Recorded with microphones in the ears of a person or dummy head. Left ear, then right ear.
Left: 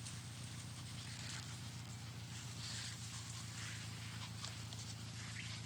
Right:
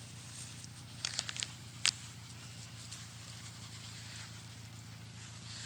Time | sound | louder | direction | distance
0.0 | an engine running | right 2 dB | 30° left (ahead or behind) | ?